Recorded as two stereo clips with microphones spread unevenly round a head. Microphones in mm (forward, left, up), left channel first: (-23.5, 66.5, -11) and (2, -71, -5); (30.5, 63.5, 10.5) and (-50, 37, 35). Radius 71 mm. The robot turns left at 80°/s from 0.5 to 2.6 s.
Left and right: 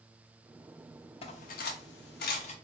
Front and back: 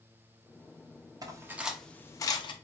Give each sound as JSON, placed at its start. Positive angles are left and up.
{"t": 1.2, "sound": "cutlery clinking", "azimuth_deg": 155, "distance_m": 0.5}